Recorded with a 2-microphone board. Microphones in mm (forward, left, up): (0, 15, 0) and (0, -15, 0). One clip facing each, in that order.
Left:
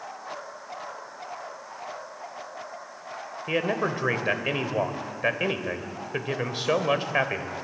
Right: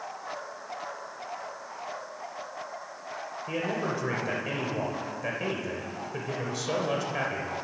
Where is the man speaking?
50° left (ahead or behind), 1.3 m.